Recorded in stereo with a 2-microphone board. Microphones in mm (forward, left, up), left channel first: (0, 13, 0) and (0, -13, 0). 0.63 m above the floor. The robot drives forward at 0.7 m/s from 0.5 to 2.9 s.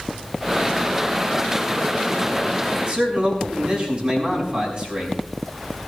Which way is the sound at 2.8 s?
45° right (ahead or behind).